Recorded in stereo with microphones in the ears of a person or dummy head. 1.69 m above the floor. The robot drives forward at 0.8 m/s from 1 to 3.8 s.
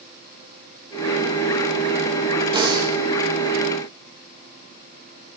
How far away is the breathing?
About 1.7 m.